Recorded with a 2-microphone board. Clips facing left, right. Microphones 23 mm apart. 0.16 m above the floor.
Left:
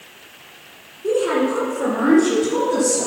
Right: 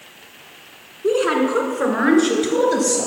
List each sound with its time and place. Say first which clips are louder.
1.0 s a woman speaking: right 1 dB; 35° right (ahead or behind), 1.6 m; by 3.1 s 55° right (ahead or behind), 2.5 m